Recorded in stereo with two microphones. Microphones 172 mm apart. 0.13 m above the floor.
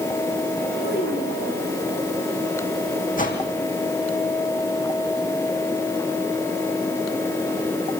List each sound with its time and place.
0.8 s a child speaking: 80° left, 9.5 m
3.2 s a whoosh: 50° left (ahead or behind), 5 m